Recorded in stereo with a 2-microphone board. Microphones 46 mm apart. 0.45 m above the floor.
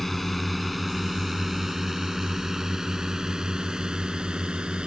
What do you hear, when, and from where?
0.0 s a drone: 5° left (ahead or behind); by 4.9 s 20° right (ahead or behind)